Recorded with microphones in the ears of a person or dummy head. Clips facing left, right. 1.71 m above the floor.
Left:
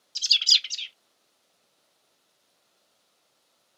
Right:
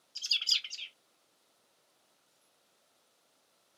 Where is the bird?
30° left (ahead or behind), 0.5 m.